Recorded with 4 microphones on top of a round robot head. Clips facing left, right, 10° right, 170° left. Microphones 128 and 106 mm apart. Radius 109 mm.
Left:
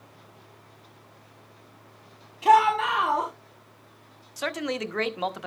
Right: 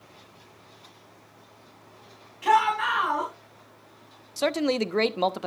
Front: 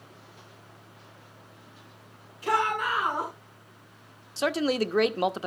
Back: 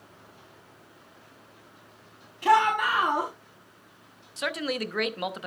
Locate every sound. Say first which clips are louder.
2.4 s a shout: left 3 dB, back 5 dB; 155° left, 5.5 m
4.4 s a man speaking: right 6 dB, front 5 dB; 50° right, 0.8 m